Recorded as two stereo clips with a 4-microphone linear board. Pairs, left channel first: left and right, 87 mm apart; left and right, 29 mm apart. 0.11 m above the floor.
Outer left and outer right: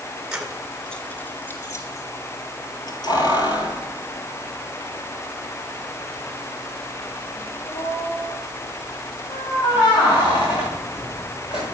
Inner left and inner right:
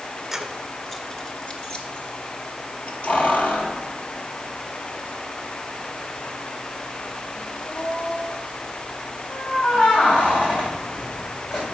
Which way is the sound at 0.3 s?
10° right (ahead or behind).